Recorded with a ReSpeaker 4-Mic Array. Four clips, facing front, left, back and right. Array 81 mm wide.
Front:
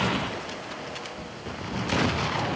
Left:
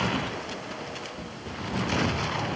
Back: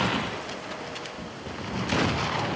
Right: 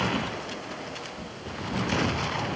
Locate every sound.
Only background noise.